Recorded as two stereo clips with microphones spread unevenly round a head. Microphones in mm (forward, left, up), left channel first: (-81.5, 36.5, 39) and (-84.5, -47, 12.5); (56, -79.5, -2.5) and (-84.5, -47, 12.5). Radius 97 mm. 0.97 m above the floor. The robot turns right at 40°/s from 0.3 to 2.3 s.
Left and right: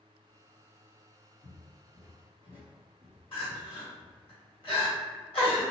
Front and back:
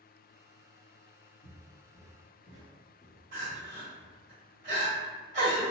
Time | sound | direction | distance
1.4 | footsteps | 40° left | 1.8 m
3.3 | crying | 110° left | 1.5 m